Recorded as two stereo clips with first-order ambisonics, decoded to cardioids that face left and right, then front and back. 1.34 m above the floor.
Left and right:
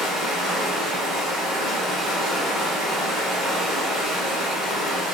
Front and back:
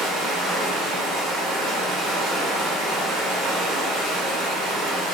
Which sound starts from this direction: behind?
Running water, at 0.0 s.